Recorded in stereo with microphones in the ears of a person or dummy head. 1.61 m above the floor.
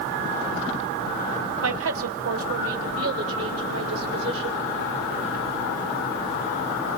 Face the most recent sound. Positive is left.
turn(degrees=-90)